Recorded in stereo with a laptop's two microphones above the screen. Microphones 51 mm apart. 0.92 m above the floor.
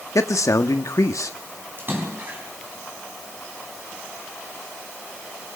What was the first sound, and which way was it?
A man speaking, 75° left (ahead or behind).